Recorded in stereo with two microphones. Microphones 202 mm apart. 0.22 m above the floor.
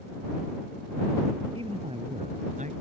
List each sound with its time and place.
1.5 s a man speaking: 30° right (ahead or behind); by 2.8 s 45° right (ahead or behind)